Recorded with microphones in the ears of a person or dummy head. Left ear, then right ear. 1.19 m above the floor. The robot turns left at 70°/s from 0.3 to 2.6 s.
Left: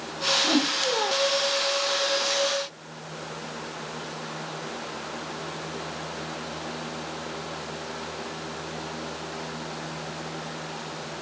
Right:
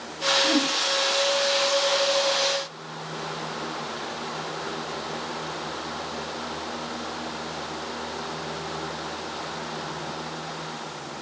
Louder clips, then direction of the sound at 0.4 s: Right 1 dB; 20° left (ahead or behind).